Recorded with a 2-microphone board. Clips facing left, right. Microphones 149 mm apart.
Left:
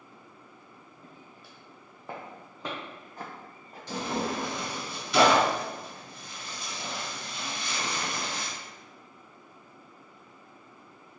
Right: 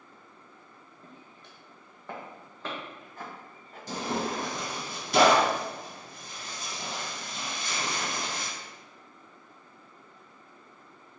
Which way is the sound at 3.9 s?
40° right (ahead or behind).